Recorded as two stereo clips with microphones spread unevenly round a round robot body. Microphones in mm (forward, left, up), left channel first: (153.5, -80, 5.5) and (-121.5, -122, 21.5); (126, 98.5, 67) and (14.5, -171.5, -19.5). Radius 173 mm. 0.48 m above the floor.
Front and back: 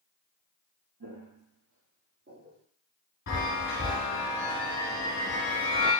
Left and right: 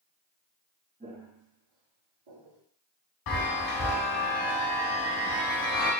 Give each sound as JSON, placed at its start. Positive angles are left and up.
{"t": 1.0, "sound": "footsteps", "azimuth_deg": 165, "distance_m": 0.9}
{"t": 3.3, "sound": "a chime", "azimuth_deg": 70, "distance_m": 1.1}